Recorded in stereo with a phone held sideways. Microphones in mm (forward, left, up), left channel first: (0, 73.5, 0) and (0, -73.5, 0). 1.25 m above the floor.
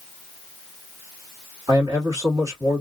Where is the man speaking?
25° right (ahead or behind), 2.5 m.